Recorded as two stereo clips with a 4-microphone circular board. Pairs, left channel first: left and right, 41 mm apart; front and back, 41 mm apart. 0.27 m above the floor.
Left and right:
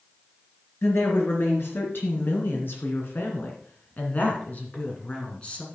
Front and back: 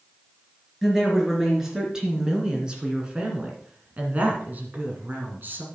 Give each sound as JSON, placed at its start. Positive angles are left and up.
{"t": 0.8, "sound": "a woman speaking", "azimuth_deg": 90, "distance_m": 3.0}